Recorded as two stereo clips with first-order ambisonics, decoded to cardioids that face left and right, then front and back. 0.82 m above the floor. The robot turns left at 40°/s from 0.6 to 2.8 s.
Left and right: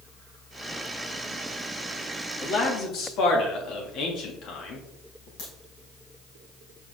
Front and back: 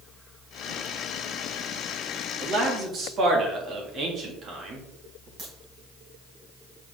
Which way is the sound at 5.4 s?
120° left.